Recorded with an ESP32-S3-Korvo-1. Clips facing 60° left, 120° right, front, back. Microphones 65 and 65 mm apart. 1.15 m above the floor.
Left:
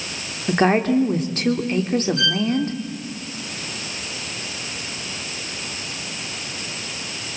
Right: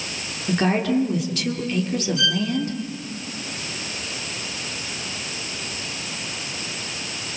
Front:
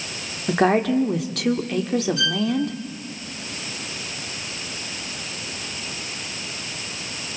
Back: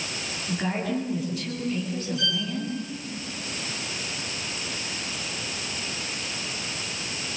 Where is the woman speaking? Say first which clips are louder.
Left 3 dB, front 10 dB; 10° left, 2.5 m.